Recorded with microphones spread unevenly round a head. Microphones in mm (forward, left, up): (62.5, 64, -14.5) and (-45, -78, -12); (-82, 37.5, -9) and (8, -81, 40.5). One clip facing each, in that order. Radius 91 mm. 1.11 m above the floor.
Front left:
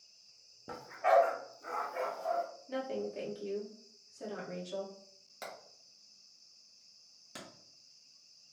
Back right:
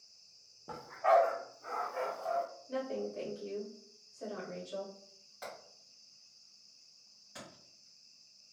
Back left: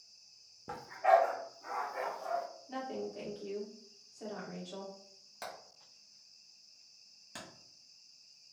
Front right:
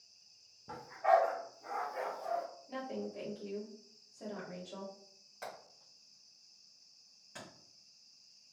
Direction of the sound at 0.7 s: 105° left.